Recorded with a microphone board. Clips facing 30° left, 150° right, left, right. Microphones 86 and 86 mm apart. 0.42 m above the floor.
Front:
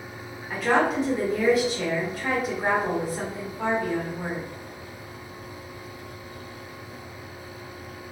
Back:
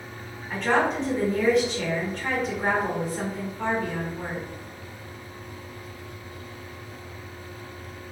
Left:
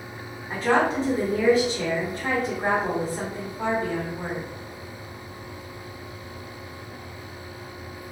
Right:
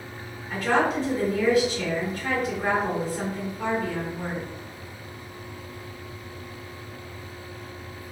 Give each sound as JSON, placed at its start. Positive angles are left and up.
{"t": 0.5, "sound": "a woman speaking", "azimuth_deg": 110, "distance_m": 1.3}